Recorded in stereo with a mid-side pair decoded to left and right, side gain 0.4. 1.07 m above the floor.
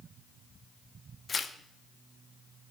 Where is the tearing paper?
40° left, 0.5 m.